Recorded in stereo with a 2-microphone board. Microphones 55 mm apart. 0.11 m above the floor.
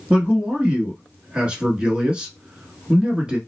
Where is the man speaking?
20° right (ahead or behind), 1.0 m.